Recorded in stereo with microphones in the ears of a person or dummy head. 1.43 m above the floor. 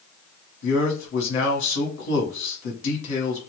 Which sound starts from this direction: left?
A man speaking, at 0.6 s.